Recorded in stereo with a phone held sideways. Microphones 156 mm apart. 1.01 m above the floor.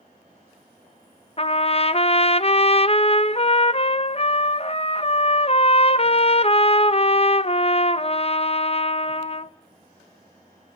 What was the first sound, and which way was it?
A trumpet, 40° left (ahead or behind).